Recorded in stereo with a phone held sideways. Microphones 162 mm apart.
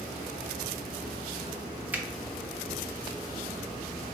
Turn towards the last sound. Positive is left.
turn(degrees=-10)  # may be behind; listen again after turning